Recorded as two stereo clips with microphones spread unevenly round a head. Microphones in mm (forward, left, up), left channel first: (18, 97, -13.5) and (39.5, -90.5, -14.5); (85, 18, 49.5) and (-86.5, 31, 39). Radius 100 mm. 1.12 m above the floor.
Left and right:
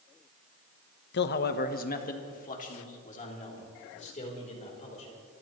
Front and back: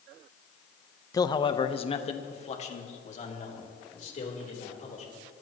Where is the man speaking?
70° left, 0.8 m; by 5.1 s 40° left, 4.5 m.